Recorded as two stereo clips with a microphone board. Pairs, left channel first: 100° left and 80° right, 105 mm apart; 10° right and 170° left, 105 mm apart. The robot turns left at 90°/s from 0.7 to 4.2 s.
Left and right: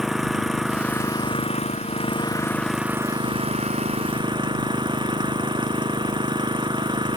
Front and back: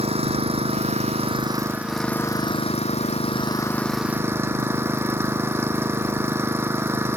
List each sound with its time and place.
0.0 s an engine running: 165° right; by 7.2 s 120° right